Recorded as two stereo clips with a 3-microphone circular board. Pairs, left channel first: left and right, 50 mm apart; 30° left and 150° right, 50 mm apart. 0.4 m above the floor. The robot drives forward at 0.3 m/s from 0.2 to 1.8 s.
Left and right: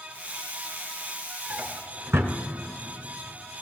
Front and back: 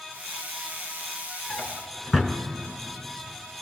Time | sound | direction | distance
1.5 | a drawer | 60° right | 1.5 m